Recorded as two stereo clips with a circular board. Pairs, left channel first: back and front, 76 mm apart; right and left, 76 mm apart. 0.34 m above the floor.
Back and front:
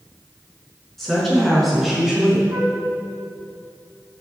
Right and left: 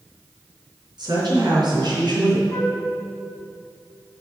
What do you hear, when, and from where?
1.0 s a woman speaking: 95° left, 3.5 m; by 2.4 s 85° left, 2.5 m
2.5 s a flute: 25° right, 2 m